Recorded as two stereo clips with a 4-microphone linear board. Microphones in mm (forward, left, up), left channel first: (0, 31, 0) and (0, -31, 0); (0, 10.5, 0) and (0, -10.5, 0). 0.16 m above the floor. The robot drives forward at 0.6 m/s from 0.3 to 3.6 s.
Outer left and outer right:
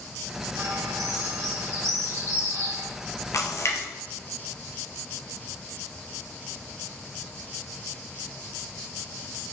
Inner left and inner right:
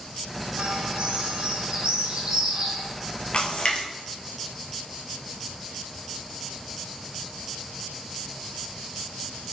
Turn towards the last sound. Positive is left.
turn(degrees=45)  # may be behind; listen again after turning